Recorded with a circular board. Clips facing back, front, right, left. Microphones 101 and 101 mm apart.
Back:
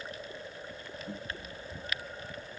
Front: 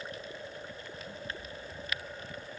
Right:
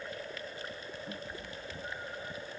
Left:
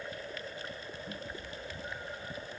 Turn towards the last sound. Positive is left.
turn(degrees=-165)